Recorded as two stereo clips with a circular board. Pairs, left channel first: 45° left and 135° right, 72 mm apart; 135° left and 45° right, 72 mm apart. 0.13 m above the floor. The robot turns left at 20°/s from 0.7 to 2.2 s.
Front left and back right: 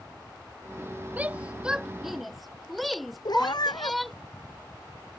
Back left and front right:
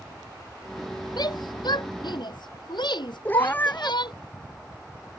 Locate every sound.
1.2 s a shout: 155° left; by 4.1 s 135° left
3.2 s a cat meowing: 70° left